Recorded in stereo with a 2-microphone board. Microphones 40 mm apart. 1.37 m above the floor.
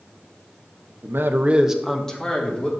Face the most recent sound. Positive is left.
turn(degrees=25)  # may be behind; listen again after turning